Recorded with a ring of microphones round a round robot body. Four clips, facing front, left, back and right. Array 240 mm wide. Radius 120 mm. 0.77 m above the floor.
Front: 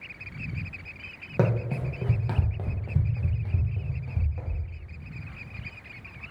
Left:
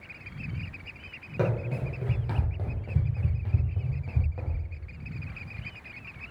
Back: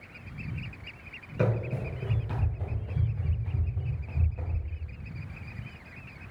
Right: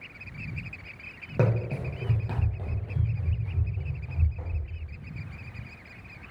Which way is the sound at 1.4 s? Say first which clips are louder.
Right 1 dB, front 3 dB; 30° right.